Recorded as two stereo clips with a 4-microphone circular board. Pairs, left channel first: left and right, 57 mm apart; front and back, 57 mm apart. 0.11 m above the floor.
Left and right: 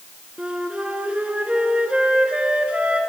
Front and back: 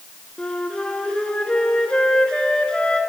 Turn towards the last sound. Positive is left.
turn(degrees=-50)